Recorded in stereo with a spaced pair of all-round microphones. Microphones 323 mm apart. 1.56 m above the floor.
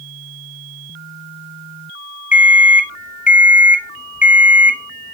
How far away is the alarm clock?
About 0.9 m.